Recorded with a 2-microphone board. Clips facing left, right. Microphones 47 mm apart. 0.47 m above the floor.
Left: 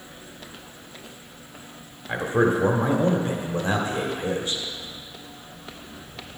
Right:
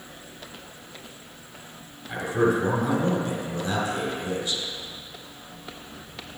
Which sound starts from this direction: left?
A man speaking, at 2.1 s.